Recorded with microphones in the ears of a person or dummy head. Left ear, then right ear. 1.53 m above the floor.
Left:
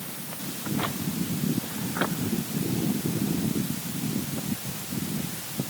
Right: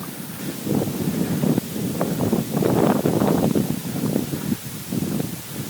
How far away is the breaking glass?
I don't hear breaking glass.